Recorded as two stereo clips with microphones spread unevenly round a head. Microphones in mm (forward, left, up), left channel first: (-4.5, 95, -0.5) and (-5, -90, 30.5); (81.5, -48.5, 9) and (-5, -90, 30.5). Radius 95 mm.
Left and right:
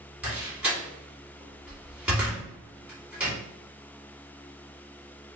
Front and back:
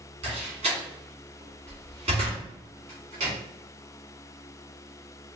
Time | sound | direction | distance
0.2 | a door slam | 175° right | 2 m